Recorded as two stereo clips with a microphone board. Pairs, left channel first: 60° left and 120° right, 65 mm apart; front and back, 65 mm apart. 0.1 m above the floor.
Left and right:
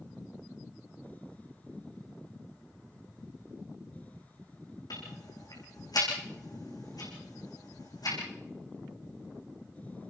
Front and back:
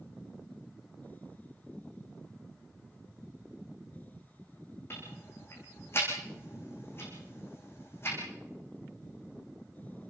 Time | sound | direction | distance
4.9 | ticking | 50° left | 7.5 m